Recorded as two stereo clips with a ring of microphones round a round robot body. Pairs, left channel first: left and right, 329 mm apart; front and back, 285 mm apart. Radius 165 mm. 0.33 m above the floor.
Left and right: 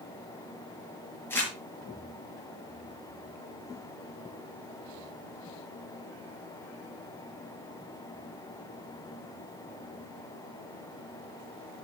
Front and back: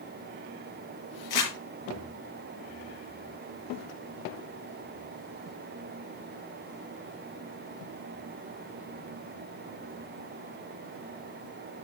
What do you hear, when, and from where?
1.3 s crumpling: 5° left, 5.5 m